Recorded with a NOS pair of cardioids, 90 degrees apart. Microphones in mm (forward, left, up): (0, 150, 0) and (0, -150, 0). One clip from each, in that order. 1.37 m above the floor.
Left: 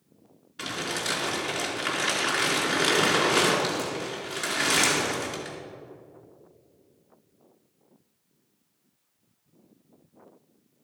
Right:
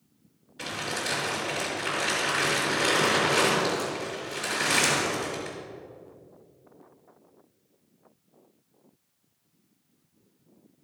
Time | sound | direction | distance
0.6 | crumpling | 55° left | 4 m